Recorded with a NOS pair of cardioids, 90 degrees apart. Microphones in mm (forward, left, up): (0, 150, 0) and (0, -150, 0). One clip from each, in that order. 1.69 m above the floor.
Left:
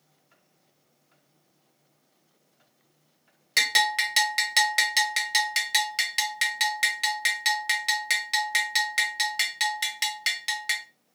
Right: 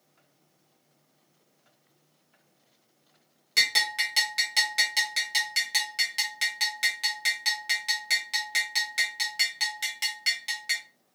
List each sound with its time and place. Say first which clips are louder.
3.6 s a bell: left 2 dB; 30° left, 1.1 m